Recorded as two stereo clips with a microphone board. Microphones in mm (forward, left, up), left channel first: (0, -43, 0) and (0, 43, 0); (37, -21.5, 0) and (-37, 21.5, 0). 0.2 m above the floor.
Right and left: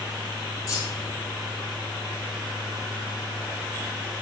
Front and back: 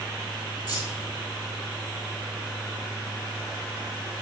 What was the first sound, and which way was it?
Keys jangling, 140° right.